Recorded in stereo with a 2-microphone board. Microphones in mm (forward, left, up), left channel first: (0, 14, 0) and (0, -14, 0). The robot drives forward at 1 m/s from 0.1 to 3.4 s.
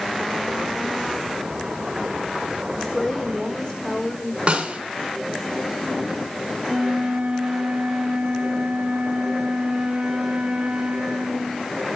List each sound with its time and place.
2.8 s a woman speaking: 30° left (ahead or behind), 4 m; by 4.4 s 25° left (ahead or behind), 4.5 m
4.5 s a snare drum: 35° right (ahead or behind), 4.5 m
6.6 s a flute: 45° right (ahead or behind), 4 m